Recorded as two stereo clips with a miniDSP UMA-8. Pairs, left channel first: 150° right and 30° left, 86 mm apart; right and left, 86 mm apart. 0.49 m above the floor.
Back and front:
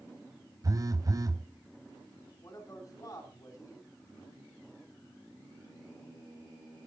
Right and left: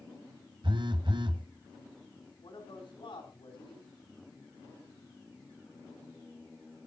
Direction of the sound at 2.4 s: 95° right.